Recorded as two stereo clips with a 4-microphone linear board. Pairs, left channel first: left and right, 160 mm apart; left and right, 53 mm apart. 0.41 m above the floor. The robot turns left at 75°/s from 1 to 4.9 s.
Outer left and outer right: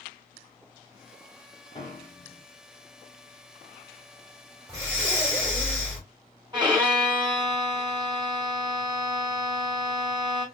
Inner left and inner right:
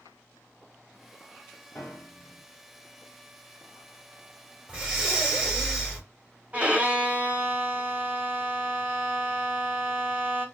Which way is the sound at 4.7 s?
20° right (ahead or behind).